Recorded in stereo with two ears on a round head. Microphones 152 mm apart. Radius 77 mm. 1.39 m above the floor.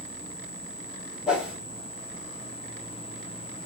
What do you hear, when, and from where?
1.3 s a whoosh: 5° right (ahead or behind), 3 m